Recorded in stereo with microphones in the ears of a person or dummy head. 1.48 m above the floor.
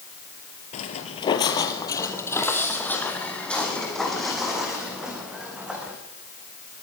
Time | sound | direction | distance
0.7 | footsteps | 35° left (ahead or behind) | 2 m